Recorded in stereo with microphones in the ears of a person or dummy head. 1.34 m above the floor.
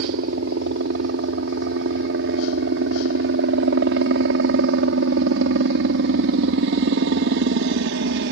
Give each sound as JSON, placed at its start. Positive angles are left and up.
{"t": 0.0, "sound": "a helicopter", "side_deg": -60}